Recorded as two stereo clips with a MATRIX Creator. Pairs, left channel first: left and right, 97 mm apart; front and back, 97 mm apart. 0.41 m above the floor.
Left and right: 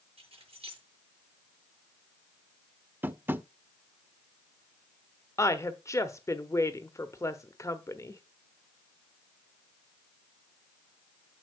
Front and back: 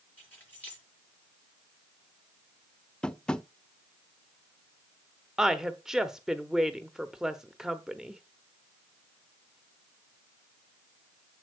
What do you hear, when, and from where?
0.2 s keys jangling: 70° right, 6 m
3.0 s tapping: 65° right, 0.5 m
5.4 s a woman speaking: 100° left, 1.0 m